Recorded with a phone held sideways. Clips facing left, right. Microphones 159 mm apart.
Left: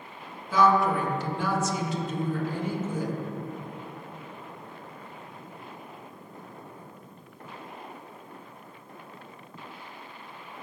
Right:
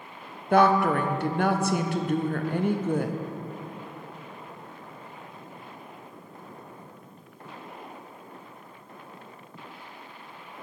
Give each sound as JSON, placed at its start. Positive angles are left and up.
{"t": 0.5, "sound": "a woman speaking", "side_deg": -60, "distance_m": 0.6}